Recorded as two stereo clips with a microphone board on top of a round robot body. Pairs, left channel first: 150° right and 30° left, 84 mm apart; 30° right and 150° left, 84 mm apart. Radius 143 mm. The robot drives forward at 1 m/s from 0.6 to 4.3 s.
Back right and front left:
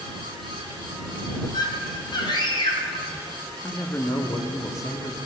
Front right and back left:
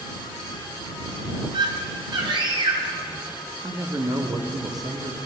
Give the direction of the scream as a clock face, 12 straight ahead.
6 o'clock.